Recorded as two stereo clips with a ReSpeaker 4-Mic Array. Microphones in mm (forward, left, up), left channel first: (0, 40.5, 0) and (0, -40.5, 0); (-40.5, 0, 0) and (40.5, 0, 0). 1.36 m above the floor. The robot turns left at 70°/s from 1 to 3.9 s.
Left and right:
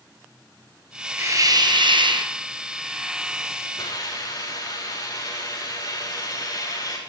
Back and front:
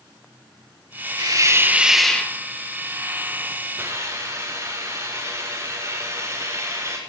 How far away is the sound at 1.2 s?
About 1.1 m.